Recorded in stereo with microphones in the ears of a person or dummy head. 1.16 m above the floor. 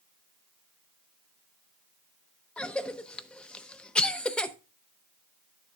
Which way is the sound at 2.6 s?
5° left (ahead or behind).